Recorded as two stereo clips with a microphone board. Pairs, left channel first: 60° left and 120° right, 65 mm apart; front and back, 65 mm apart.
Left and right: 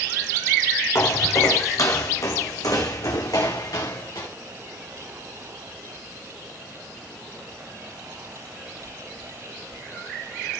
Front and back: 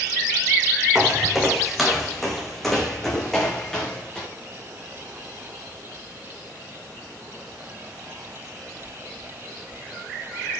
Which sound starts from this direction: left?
Footsteps, at 0.9 s.